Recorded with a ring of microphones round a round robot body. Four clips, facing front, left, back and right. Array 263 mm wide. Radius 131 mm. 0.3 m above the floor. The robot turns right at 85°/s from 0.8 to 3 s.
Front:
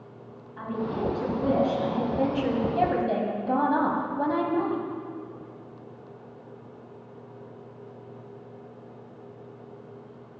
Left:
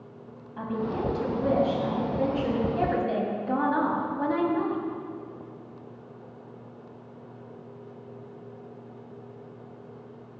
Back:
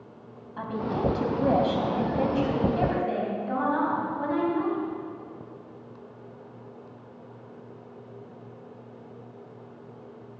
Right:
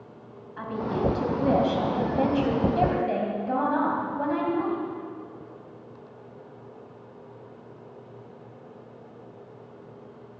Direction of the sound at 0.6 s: 145° left.